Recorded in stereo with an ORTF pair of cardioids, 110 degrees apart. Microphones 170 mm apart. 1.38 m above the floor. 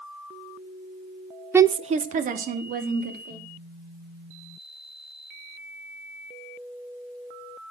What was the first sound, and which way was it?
A woman speaking, 10° right.